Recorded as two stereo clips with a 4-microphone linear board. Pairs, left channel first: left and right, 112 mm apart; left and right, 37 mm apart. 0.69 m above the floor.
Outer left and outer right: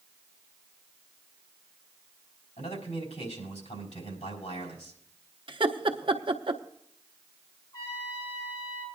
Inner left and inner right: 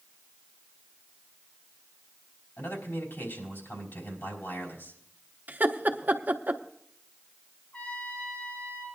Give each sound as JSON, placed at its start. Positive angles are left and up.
{"t": 2.6, "sound": "a man speaking", "side_deg": 80, "distance_m": 4.0}
{"t": 5.5, "sound": "laughter", "side_deg": -50, "distance_m": 0.9}
{"t": 7.7, "sound": "a trumpet", "side_deg": 40, "distance_m": 6.0}